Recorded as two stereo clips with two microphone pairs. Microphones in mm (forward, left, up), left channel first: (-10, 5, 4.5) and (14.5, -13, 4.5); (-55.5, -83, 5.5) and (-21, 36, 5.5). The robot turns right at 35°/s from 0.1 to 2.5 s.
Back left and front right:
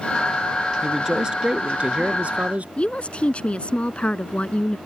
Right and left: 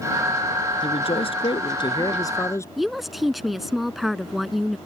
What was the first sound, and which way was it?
A man speaking, 105° right.